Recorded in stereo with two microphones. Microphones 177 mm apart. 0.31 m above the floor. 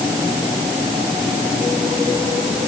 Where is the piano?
I don't hear a piano.